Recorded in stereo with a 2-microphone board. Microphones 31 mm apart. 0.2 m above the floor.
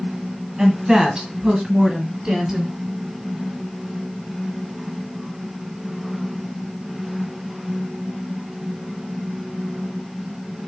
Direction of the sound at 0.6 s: 20° right (ahead or behind).